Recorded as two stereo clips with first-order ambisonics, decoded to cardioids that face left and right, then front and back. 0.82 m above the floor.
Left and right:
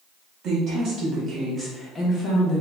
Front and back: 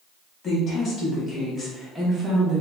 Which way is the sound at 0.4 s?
55° right.